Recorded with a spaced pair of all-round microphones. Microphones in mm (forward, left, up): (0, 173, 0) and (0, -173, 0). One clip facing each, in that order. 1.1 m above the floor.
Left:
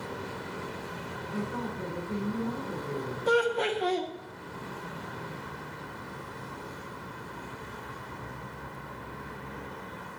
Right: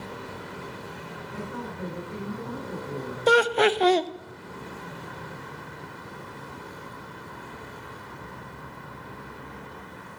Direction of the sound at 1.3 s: 50° left (ahead or behind).